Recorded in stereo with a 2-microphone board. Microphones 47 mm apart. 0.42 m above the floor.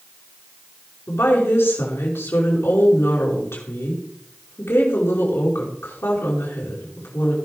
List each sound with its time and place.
1.1 s a woman speaking: 80° left, 5.5 m